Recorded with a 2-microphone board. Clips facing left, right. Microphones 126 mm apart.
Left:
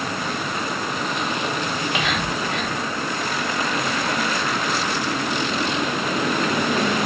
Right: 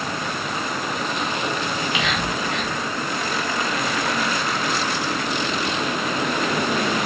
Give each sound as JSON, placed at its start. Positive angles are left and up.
{"t": 1.7, "sound": "whispering", "side_deg": 45, "distance_m": 1.1}